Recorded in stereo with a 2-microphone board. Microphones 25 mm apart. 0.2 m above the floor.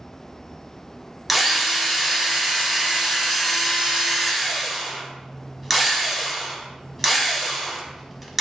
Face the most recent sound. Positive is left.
turn(degrees=-10)  # may be behind; listen again after turning